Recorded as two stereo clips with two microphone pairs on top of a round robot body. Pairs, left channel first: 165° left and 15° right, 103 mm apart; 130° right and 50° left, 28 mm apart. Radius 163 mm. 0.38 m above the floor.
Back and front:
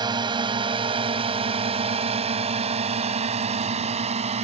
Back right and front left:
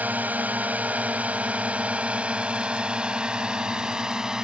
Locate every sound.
0.0 s a drone: 30° left; by 4.5 s 15° right